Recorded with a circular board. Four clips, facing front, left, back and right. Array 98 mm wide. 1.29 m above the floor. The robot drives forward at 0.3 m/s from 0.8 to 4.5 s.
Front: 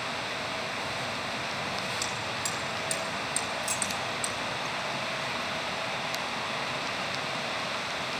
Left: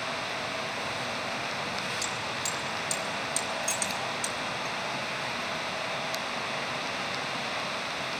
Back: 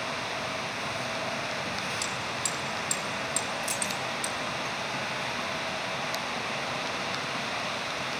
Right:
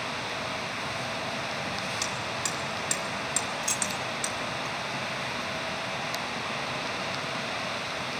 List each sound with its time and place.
2.0 s hammering: 75° right, 1.5 m; by 4.3 s 100° right, 1.4 m
3.6 s keys jangling: 100° right, 1.3 m; by 4.0 s 105° right, 1.3 m